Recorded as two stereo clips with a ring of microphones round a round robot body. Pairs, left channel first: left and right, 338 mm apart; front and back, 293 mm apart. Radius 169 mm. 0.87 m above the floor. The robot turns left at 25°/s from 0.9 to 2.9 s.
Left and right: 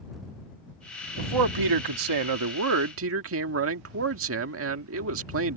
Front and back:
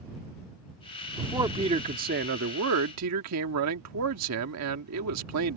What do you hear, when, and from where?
1.2 s a man speaking: 95° right; by 5.6 s 140° right